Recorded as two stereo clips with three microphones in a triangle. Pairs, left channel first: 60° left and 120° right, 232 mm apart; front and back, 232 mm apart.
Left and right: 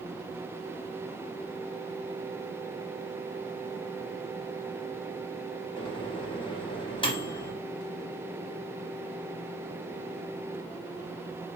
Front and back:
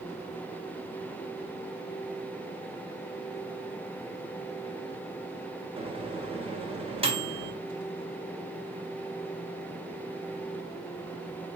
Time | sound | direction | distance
5.8 | a microwave | 120° left | 0.8 m